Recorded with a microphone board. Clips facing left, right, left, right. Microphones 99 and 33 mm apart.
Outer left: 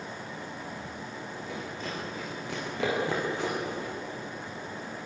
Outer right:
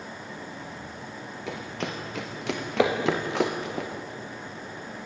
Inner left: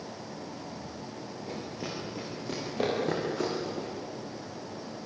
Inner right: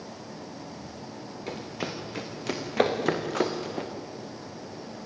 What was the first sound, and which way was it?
Running footsteps, 70° right (ahead or behind).